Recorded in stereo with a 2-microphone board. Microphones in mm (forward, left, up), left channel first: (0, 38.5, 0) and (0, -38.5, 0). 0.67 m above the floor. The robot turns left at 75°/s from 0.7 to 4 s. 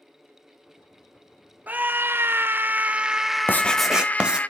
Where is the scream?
20° right (ahead or behind), 0.5 m; by 4.5 s 20° left (ahead or behind), 0.5 m.